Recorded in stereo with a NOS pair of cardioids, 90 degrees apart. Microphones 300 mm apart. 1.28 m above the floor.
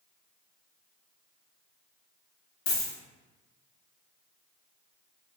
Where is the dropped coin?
65° left, 2.0 m.